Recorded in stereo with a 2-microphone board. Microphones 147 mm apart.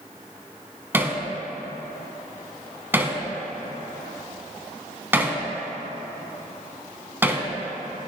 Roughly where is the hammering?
Centre.